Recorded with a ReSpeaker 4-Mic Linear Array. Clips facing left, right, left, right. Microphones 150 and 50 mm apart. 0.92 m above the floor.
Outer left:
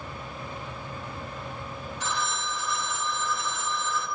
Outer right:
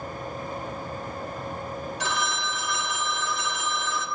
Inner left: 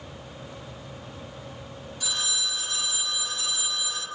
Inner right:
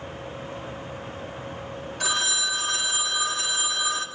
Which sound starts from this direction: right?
A phone ringing, at 2.0 s.